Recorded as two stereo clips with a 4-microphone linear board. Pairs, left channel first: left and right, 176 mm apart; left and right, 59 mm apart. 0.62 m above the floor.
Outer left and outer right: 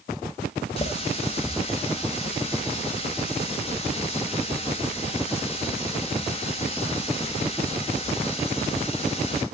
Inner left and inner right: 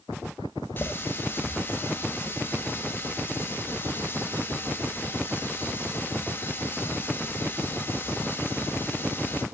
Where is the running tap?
35° left (ahead or behind), 1.9 m.